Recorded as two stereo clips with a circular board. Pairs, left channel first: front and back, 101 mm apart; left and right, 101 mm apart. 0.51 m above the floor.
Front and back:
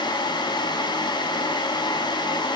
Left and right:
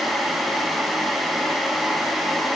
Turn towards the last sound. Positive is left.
No sound to turn to.